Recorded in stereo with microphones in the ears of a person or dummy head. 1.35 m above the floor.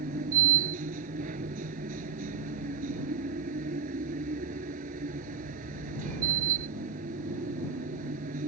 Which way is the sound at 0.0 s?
50° right (ahead or behind).